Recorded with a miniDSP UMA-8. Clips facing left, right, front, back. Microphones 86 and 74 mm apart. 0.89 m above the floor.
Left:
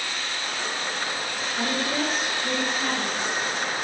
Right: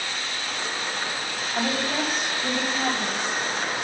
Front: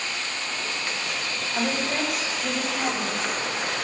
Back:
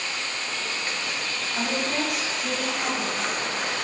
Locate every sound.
1.5 s a woman speaking: 55° right, 4 m